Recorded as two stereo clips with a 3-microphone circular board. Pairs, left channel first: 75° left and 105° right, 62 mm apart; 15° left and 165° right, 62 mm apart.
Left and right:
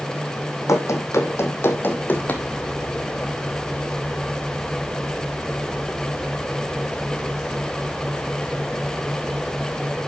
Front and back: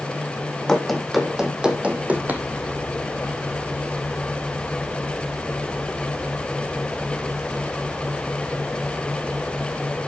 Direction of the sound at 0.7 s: 95° left.